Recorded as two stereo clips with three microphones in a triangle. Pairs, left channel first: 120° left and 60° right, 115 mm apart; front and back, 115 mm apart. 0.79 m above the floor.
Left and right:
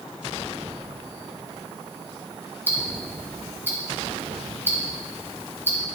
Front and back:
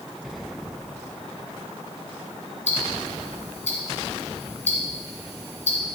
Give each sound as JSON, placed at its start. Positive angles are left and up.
{"t": 2.7, "sound": "ticking", "azimuth_deg": 15, "distance_m": 2.5}